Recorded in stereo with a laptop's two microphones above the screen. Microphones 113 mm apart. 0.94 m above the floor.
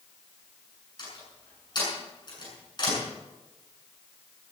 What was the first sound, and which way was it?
A door slam, 40° left (ahead or behind).